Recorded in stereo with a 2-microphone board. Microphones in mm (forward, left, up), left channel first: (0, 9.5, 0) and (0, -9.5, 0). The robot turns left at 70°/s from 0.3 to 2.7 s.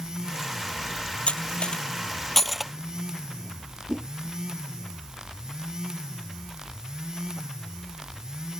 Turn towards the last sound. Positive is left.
turn(degrees=-35)  # may be behind; listen again after turning